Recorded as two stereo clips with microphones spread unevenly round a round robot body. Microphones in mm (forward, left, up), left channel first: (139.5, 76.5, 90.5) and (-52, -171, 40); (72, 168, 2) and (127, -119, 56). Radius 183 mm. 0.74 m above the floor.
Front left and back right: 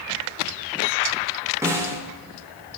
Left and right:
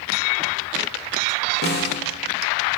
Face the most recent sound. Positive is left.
turn(degrees=155)